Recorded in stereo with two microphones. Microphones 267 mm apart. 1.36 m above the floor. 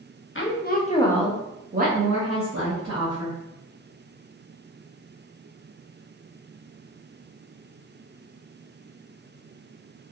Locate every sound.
0.3 s a woman speaking: 50° left (ahead or behind), 0.7 m; by 3.4 s 70° right (ahead or behind), 1.2 m